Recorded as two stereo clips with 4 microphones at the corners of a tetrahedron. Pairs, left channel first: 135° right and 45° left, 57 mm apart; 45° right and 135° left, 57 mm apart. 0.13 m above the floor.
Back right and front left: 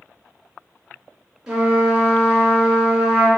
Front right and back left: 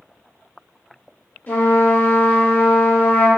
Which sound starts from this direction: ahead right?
A trumpet, at 1.5 s.